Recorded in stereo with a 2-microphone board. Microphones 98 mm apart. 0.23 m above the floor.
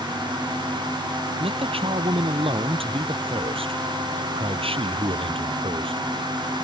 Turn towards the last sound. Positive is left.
turn(degrees=-70)  # may be behind; listen again after turning